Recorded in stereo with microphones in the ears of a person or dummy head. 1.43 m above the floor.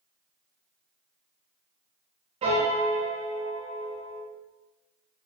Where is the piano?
30° right (ahead or behind), 0.5 m.